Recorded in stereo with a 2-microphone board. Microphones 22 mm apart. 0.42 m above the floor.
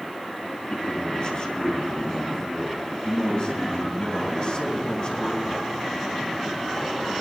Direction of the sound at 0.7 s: 45° left (ahead or behind).